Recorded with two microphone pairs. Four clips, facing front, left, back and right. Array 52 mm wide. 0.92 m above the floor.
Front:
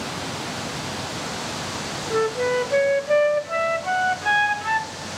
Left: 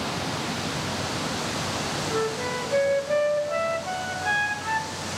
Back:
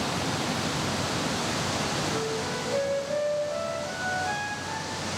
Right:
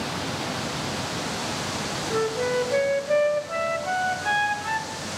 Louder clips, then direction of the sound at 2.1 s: Right 5 dB, front 8 dB; 10° right.